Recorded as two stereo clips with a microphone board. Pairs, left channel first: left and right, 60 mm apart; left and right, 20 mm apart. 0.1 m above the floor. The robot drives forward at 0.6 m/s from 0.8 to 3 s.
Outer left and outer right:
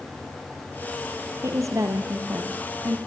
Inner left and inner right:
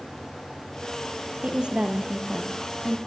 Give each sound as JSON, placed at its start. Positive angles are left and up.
{"t": 1.4, "sound": "a woman speaking", "side_deg": -55, "distance_m": 3.0}